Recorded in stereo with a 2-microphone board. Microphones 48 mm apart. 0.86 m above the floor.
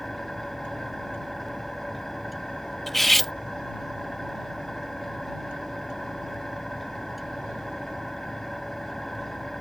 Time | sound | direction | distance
0.0 | an engine running | 5° left (ahead or behind) | ?
2.9 | cutlery clinking | 5° left (ahead or behind) | ?